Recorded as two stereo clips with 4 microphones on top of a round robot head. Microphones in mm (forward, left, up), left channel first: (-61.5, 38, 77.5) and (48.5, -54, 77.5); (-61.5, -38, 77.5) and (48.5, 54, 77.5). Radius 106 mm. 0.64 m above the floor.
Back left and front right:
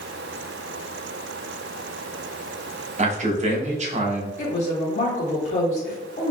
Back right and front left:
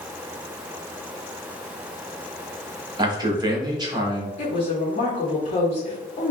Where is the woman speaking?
Straight behind, 1.5 m.